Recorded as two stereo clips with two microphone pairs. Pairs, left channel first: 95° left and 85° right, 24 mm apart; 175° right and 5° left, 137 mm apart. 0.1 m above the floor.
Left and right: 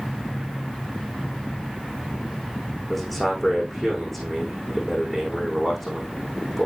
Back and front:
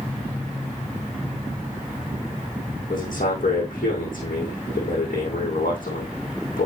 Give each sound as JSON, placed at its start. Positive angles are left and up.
{"t": 2.9, "sound": "a man speaking", "azimuth_deg": -175, "distance_m": 5.5}